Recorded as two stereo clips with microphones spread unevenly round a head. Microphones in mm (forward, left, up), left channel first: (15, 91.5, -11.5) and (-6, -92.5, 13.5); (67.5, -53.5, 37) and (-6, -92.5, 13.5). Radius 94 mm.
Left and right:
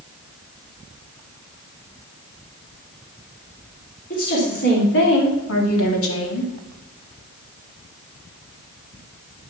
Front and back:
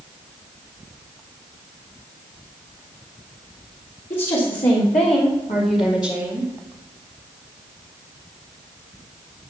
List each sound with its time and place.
4.1 s a woman speaking: 40° left, 3.5 m; by 6.5 s 110° left, 2.5 m